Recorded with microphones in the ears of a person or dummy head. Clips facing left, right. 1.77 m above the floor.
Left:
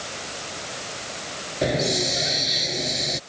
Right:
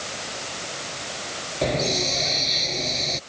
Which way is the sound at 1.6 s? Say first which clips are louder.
Left 1 dB; 10° left (ahead or behind).